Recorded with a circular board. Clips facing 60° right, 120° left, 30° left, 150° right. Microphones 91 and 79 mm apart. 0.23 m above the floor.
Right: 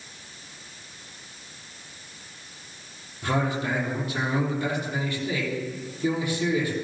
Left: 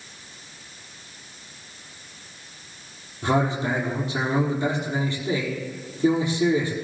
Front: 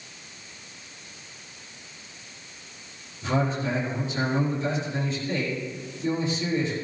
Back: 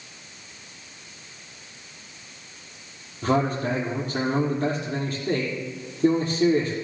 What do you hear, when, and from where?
3.2 s a man speaking: 170° right, 6 m